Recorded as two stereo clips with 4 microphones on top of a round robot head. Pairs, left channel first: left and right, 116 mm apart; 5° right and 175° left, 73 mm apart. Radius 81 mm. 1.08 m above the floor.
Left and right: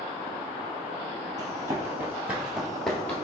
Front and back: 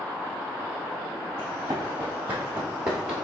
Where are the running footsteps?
135° right, 1.3 m; by 3.2 s 115° left, 1.1 m.